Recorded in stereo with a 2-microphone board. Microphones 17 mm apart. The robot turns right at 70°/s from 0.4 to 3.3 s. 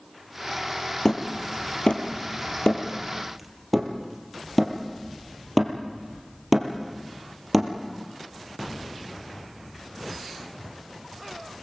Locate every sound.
1.1 s hammering: 25° left (ahead or behind), 3.5 m; by 7.7 s 5° right (ahead or behind), 3.5 m